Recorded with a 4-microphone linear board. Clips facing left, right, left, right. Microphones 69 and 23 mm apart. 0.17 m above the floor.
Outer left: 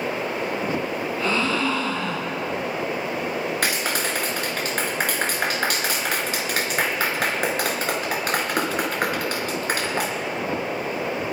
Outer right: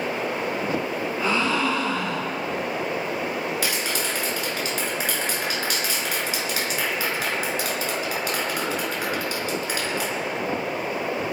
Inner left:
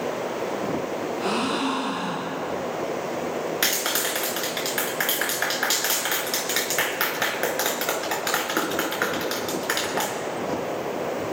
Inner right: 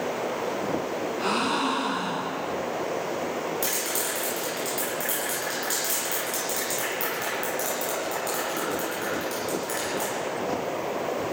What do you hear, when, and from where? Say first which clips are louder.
1.2 s a gasp: even, even; 15° right (ahead or behind), 6.5 m
3.6 s a clap: outer left 2 dB, inner left 4 dB; 50° left (ahead or behind), 2.5 m